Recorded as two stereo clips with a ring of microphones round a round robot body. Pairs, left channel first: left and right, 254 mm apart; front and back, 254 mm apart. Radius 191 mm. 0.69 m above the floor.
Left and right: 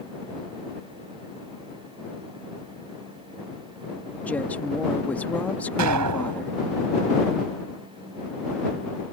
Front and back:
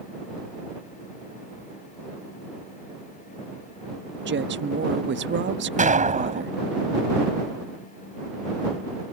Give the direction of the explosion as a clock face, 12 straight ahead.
4 o'clock.